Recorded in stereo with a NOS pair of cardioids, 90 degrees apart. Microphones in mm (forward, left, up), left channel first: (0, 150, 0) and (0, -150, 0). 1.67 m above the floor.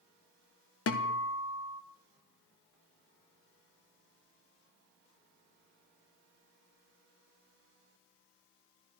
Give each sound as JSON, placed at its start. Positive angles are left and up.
{"t": 0.9, "sound": "a guitar", "azimuth_deg": 45, "distance_m": 1.4}